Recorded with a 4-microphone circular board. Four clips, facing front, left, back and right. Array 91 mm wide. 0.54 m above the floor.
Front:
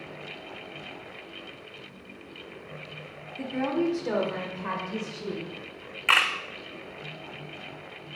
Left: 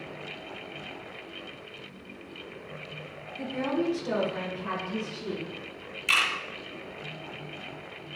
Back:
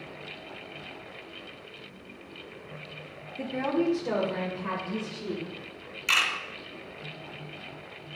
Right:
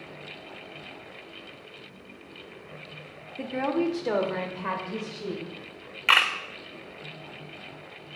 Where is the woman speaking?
110° right, 1.4 m; by 5.5 s 70° right, 3 m.